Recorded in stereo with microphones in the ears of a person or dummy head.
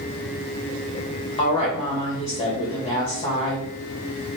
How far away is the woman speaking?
About 1.3 m.